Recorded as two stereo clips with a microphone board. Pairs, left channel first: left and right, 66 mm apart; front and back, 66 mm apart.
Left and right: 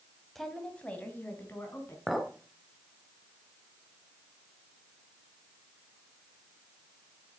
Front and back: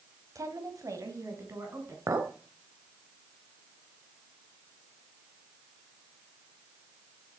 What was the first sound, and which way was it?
A woman speaking, 175° left.